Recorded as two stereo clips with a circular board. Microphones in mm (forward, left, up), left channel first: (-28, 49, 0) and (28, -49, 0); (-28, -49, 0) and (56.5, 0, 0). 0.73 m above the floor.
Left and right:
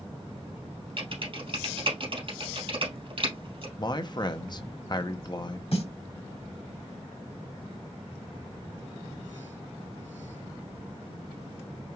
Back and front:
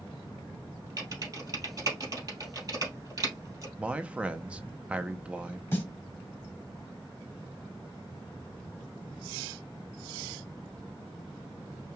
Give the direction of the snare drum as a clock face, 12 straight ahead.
7 o'clock.